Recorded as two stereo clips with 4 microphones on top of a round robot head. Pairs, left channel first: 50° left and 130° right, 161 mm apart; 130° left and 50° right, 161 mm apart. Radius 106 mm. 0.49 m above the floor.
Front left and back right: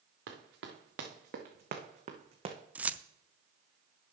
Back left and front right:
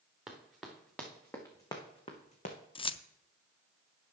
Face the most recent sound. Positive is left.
turn(degrees=155)